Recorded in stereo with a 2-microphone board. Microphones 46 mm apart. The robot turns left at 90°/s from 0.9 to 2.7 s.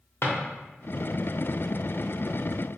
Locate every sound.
0.2 s a drawer: 65° left (ahead or behind), 0.8 m